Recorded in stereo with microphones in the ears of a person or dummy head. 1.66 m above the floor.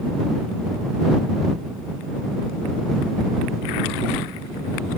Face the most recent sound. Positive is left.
No sound to turn to.